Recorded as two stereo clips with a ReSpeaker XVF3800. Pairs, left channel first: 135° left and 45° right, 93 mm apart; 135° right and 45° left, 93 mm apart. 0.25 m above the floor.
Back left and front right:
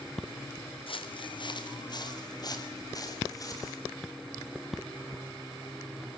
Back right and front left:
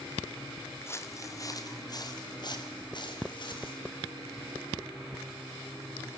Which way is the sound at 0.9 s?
160° left.